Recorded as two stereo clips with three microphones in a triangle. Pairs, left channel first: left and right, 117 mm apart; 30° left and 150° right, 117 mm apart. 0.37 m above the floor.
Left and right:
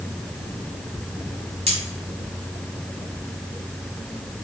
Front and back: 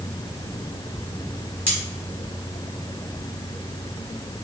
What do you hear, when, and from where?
1.7 s cutlery clinking: 75° right, 1.3 m